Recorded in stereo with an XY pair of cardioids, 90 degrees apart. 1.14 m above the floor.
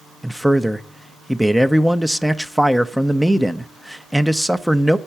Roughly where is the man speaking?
Ahead.